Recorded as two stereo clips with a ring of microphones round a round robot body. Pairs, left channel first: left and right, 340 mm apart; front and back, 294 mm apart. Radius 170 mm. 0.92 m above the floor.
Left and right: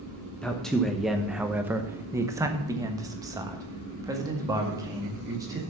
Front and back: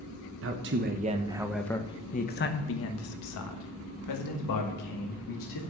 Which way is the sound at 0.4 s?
175° left.